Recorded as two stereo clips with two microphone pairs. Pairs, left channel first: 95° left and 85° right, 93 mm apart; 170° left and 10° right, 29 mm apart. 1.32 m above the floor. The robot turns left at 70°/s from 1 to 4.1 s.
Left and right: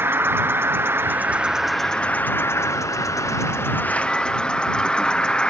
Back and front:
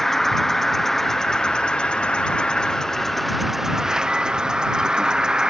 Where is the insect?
125° right; by 5.5 s 20° left.